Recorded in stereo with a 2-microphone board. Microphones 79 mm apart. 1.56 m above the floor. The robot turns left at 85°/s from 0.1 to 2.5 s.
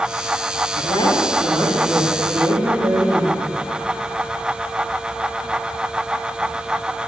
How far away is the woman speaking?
About 3.5 m.